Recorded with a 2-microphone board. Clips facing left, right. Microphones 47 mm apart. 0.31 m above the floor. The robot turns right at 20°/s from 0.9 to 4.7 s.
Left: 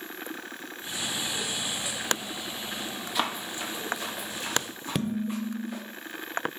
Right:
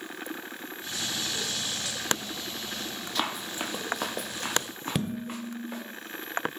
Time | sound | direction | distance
3.1 | running footsteps | 10° left (ahead or behind) | 0.7 m
5.0 | dishes clattering | centre (ahead or behind) | 0.5 m